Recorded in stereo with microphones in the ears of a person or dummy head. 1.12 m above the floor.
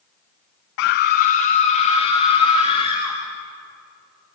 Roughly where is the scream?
Left.